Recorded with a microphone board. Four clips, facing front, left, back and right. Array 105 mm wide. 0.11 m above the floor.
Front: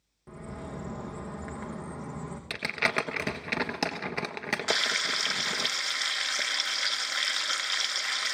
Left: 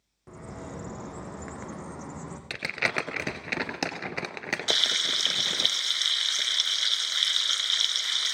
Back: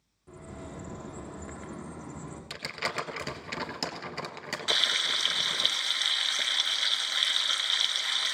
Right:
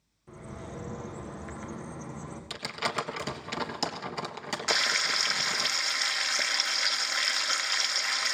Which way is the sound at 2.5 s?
50° left.